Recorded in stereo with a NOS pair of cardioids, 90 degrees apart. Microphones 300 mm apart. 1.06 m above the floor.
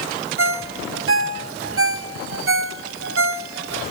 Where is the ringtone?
50° right, 1.7 m.